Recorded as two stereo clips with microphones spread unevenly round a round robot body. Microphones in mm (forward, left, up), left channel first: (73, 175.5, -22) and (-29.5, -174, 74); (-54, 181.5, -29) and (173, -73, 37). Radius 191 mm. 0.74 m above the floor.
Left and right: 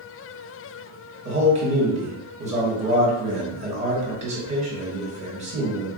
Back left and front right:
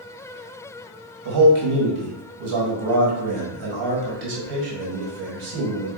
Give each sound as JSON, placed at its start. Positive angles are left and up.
{"t": 1.2, "sound": "a man speaking", "azimuth_deg": -25, "distance_m": 1.4}